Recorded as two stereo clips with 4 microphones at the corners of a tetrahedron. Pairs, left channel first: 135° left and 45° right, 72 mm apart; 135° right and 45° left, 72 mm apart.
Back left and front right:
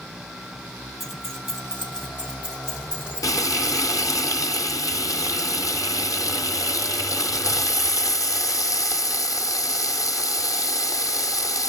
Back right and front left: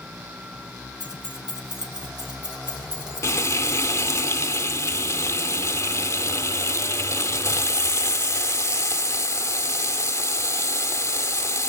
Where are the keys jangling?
45° left, 2 m; by 4.2 s 30° left, 5 m.